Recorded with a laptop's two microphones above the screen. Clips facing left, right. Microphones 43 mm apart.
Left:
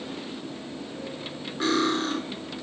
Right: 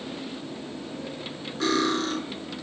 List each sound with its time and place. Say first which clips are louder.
1.6 s cutlery clinking: even; 20° left (ahead or behind), 1.4 m